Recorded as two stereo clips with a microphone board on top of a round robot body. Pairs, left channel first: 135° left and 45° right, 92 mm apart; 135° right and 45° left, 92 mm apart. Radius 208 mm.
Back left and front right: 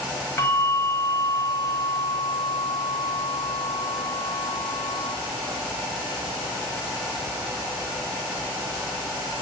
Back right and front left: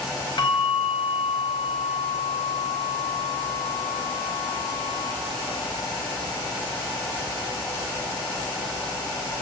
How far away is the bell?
About 3.5 m.